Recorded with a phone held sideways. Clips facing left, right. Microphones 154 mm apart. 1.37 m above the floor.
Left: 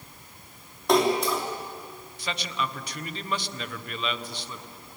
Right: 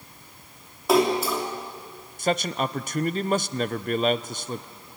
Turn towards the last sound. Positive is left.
turn(degrees=-45)  # may be behind; listen again after turning